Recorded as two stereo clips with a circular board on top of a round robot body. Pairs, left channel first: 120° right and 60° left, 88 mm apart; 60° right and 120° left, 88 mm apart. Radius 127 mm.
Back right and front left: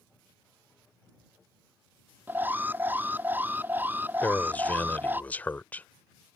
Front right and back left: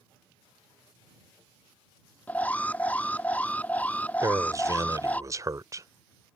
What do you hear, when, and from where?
2.3 s an alarm: 5° left
4.2 s a man speaking: 170° left